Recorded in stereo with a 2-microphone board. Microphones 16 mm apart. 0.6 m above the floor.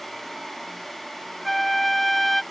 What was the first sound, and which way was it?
A flute, 10° left (ahead or behind).